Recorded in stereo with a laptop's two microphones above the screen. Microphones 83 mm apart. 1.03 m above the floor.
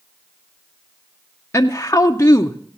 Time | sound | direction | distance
1.5 | a woman speaking | 30° left (ahead or behind) | 0.5 m